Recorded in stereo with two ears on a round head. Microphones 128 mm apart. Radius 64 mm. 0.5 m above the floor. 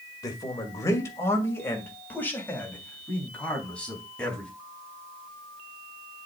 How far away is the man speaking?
About 1.9 m.